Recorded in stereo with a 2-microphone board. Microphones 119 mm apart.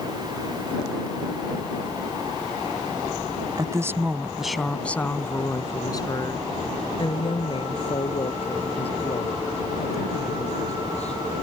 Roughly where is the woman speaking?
Right.